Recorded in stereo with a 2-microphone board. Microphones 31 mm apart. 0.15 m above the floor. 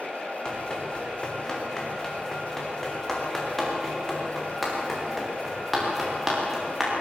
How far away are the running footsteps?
About 6.5 m.